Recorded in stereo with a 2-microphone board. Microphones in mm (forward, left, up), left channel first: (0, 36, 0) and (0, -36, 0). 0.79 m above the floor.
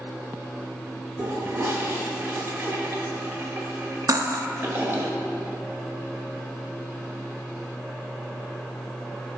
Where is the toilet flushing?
30° right (ahead or behind), 1.3 m.